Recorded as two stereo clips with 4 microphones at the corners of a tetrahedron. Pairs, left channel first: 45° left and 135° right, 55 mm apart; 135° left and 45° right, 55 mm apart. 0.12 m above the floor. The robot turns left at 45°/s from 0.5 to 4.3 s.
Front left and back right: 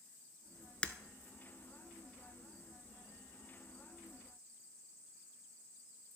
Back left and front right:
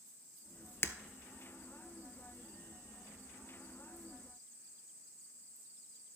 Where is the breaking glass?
110° left, 0.6 m.